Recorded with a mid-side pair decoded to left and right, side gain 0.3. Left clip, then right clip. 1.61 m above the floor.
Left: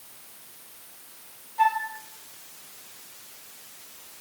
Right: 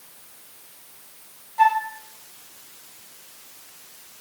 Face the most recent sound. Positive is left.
turn(degrees=-40)